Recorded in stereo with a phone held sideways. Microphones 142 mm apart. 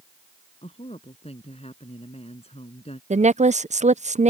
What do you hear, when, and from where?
0.6 s a woman speaking: 45° left (ahead or behind)
3.1 s a woman speaking: 55° right (ahead or behind)